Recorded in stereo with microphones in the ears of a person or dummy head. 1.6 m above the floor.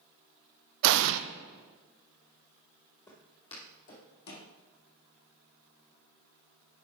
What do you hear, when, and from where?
0.8 s an explosion: 70° right (ahead or behind), 0.5 m
3.1 s footsteps: 30° left (ahead or behind), 2 m; by 4.5 s 55° left (ahead or behind), 3 m